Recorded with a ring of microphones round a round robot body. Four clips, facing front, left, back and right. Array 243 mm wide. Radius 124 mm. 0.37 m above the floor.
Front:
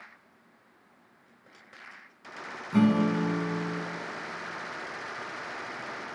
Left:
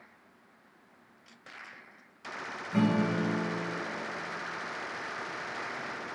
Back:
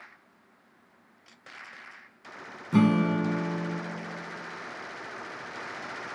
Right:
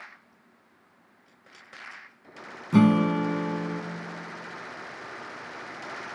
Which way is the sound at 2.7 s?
120° right.